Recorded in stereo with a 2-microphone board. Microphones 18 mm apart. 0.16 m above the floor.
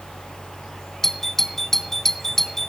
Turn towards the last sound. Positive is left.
turn(degrees=15)  # may be behind; listen again after turning